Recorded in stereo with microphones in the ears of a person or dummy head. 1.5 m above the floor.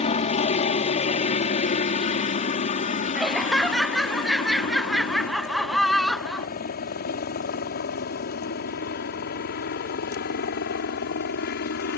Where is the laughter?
Centre (ahead or behind).